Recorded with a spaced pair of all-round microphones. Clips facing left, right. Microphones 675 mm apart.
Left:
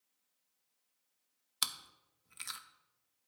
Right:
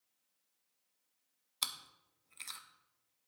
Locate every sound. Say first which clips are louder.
1.6 s chewing: left 2 dB; 50° left (ahead or behind), 0.6 m